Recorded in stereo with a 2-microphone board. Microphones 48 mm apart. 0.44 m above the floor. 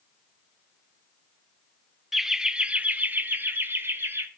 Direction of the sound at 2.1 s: 5° right (ahead or behind).